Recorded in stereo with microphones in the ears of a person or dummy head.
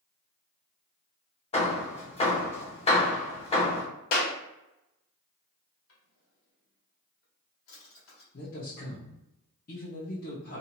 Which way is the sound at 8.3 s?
55° left (ahead or behind).